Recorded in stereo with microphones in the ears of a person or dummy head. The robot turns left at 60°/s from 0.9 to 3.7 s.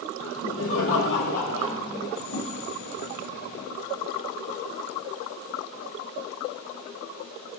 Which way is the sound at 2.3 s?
55° left (ahead or behind).